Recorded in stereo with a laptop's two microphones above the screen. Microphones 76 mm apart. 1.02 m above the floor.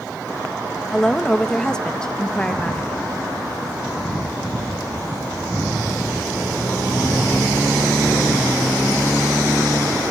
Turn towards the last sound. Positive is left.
turn(degrees=10)  # may be behind; listen again after turning